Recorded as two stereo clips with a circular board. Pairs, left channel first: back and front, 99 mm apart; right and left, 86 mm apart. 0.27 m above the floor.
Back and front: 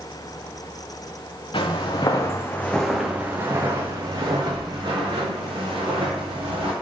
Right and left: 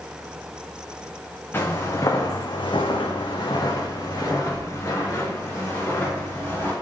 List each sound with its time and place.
1.5 s footsteps: 150° right, 1.1 m; by 6.7 s 25° right, 3 m